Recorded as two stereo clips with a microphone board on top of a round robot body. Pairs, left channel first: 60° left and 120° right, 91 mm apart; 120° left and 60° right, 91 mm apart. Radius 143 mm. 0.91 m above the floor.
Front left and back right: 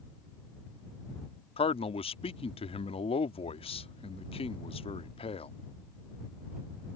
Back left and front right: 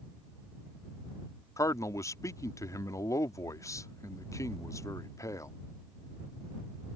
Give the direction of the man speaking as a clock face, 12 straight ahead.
10 o'clock.